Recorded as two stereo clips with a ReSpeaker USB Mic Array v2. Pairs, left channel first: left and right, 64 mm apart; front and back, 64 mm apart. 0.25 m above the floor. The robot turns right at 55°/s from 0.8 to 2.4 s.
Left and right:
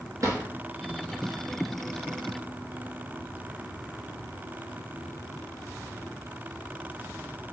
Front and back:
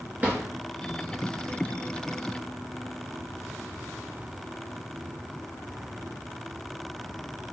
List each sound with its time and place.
0.2 s a drawer: 115° right, 1.7 m